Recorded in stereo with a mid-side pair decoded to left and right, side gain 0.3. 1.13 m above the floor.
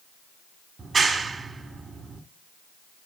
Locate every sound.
0.8 s a clap: 60° right, 2 m